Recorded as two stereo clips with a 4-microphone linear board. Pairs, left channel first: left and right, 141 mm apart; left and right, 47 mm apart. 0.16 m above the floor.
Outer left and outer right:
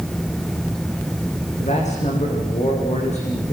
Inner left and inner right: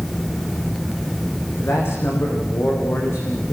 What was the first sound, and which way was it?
A man speaking, 55° left (ahead or behind).